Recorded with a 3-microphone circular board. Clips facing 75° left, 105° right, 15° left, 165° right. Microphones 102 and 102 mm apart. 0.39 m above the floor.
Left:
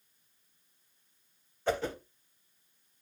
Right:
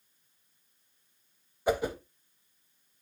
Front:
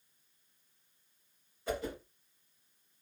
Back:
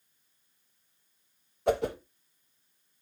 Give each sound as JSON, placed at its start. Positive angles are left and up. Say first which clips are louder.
{"t": 1.7, "sound": "a whoosh", "louder": "right 3 dB, back 10 dB", "azimuth_deg": 180, "distance_m": 0.6}